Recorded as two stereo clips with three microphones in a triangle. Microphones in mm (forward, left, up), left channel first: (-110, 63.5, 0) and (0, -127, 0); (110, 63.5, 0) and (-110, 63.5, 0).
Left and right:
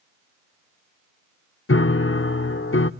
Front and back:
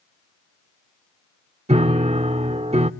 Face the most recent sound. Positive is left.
turn(degrees=120)